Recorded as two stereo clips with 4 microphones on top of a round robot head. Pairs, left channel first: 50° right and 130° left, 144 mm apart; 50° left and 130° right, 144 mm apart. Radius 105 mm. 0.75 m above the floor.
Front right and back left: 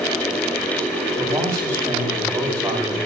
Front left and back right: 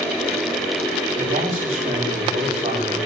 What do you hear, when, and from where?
1.1 s a man speaking: 165° right, 6 m